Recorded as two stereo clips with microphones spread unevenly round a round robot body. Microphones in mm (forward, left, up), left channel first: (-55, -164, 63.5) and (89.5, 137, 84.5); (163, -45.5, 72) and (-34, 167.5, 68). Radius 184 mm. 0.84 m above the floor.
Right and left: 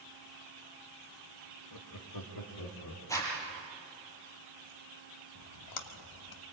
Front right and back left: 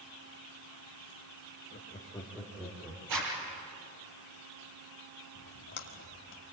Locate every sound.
1.7 s laughter: 115° right, 2.0 m; by 3.0 s 145° right, 3 m
3.1 s a zipper: 165° left, 5 m
5.3 s a splash: 95° right, 1.1 m